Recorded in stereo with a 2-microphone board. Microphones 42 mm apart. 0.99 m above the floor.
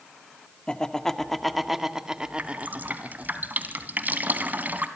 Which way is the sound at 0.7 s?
20° left (ahead or behind).